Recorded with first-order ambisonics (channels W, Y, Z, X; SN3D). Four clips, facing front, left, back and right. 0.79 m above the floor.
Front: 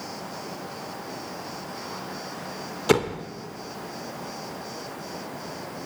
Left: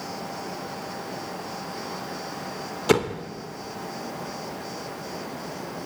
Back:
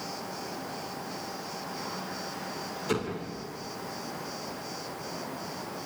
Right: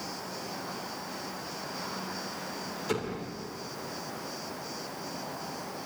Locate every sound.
2.9 s a door slam: 45° left, 1.4 m